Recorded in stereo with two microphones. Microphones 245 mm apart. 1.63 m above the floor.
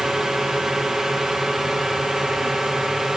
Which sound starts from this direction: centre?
A drone, at 0.0 s.